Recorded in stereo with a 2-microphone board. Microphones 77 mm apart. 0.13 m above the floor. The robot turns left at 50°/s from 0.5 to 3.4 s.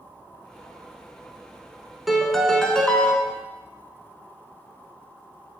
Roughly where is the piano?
Centre.